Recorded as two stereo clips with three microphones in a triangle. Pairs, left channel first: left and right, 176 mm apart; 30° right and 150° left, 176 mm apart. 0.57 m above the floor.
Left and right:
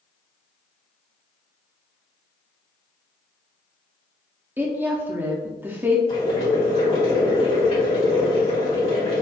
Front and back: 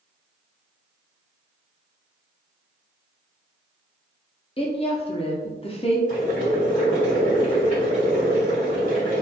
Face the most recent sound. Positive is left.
turn(degrees=130)